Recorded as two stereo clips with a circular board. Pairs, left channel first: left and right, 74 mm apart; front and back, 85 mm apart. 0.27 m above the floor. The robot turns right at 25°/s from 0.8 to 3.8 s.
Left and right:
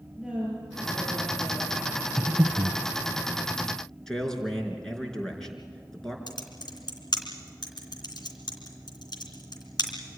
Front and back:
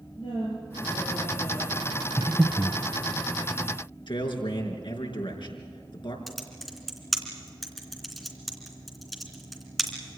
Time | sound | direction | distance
0.2 | a woman speaking | 5° right | 6.5 m
2.2 | breathing | 95° right | 0.9 m
4.1 | a man speaking | 10° left | 4 m
6.3 | typing on a keyboard | 90° left | 3 m